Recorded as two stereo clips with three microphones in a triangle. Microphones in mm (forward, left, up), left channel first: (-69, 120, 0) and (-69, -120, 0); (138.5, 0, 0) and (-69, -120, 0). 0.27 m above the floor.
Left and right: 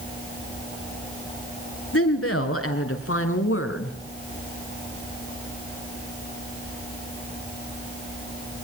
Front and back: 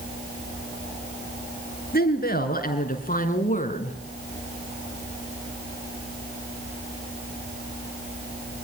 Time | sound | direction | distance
1.9 | a woman speaking | 75° left | 3.5 m